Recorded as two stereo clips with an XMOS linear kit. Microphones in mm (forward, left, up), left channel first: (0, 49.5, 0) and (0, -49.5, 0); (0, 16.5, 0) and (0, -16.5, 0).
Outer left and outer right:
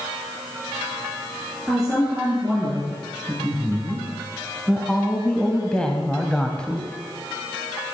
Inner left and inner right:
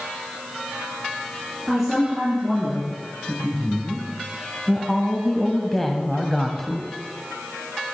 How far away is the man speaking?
About 4 m.